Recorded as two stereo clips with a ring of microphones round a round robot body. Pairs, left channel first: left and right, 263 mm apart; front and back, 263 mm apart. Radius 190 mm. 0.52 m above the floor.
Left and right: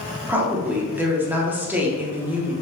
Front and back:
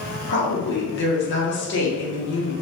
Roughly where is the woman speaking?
Ahead.